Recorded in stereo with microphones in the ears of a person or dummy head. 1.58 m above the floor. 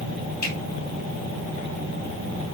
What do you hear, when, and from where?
0.4 s a finger snap: 50° left (ahead or behind), 3.5 m